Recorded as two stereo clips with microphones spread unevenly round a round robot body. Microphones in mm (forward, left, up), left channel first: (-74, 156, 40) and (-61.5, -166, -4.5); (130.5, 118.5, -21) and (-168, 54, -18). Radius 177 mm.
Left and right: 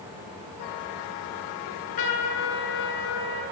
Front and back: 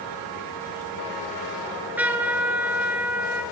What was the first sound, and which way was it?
A trumpet, 110° left.